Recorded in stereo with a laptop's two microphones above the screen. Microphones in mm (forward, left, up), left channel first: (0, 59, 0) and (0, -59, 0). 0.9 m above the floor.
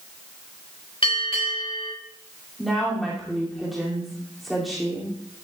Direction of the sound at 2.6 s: Centre (ahead or behind).